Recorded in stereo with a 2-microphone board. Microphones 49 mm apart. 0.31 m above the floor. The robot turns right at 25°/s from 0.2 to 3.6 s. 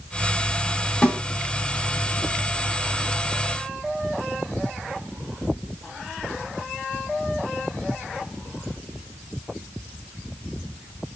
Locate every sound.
1.0 s a snare drum: 20° left (ahead or behind), 1.2 m